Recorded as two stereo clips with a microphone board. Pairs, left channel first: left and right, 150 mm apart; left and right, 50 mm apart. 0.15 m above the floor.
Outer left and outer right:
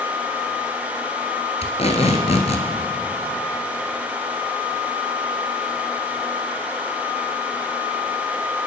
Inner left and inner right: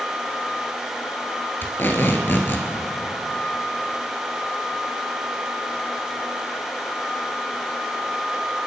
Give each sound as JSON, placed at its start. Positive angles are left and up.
{"t": 1.6, "sound": "tape being pulled", "side_deg": 45, "distance_m": 1.5}